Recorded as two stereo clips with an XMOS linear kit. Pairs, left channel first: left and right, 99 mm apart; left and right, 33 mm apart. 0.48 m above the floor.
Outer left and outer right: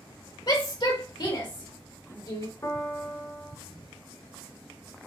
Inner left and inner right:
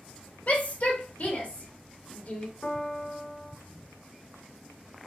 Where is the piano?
30° left (ahead or behind), 0.7 m.